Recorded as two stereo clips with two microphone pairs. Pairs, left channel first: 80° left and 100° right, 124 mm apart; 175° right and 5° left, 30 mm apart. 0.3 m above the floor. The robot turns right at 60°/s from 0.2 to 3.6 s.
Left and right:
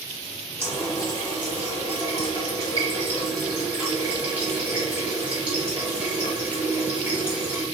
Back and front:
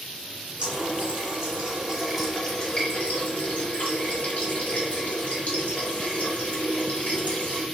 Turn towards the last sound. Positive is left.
turn(degrees=180)